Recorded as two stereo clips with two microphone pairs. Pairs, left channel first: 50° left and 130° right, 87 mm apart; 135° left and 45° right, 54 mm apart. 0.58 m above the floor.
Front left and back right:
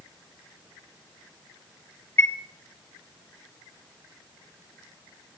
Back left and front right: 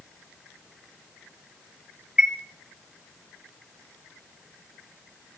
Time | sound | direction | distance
2.2 | a chime | 15° left | 1.0 m